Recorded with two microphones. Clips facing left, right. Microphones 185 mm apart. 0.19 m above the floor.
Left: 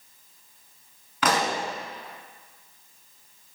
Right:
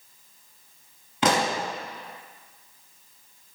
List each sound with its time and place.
1.2 s a pop: 25° right (ahead or behind), 0.5 m